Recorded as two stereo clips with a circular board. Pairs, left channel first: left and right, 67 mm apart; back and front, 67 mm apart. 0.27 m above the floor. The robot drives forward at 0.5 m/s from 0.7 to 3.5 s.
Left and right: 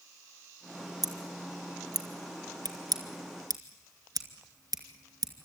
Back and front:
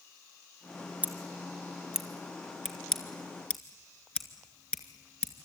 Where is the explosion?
No explosion in this recording.